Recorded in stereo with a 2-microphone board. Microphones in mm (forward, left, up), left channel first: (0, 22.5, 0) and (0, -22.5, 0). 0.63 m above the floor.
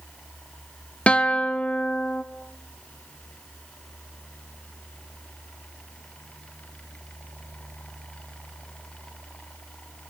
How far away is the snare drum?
No snare drum in this recording.